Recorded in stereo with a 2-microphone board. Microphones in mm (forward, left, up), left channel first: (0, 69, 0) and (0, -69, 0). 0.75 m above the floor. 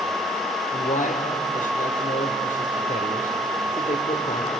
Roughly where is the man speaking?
Left.